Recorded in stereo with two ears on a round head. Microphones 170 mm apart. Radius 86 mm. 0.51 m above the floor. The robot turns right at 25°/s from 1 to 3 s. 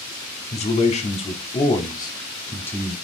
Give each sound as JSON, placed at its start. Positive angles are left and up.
{"t": 0.5, "sound": "a man speaking", "azimuth_deg": 120, "distance_m": 0.9}